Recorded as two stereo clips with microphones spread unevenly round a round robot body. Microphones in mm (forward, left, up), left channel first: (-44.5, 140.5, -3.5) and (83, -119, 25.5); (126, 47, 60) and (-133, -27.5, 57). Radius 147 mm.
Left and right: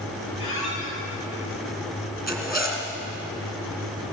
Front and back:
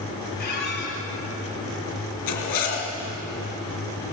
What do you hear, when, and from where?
0.4 s a squeak: 70° left, 7 m
2.3 s a zipper: 25° left, 4 m